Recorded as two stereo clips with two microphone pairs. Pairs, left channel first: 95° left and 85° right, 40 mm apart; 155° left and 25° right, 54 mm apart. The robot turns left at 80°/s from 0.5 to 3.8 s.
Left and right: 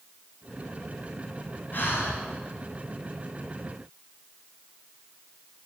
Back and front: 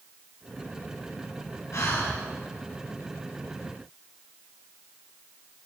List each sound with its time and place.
1.7 s breathing: 130° left, 3.5 m; by 2.2 s 95° left, 3.5 m